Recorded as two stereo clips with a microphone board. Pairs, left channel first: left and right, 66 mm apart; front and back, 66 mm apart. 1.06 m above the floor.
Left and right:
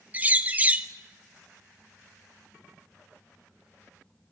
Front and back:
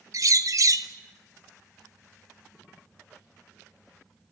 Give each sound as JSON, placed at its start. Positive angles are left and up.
{"t": 0.1, "sound": "a bird", "azimuth_deg": -150, "distance_m": 1.2}